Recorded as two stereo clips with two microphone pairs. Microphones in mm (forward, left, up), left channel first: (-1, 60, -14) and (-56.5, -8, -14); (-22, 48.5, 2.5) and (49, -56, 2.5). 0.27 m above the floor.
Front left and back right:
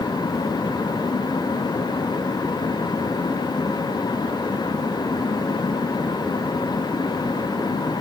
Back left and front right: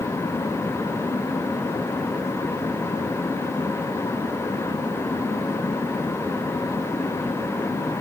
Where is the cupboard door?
I don't hear a cupboard door.